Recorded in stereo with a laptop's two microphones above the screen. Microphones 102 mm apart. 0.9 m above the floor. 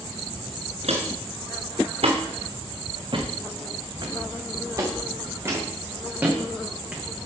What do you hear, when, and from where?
0.8 s footsteps: 70° right (ahead or behind), 3 m; by 7.0 s 15° right (ahead or behind), 4.5 m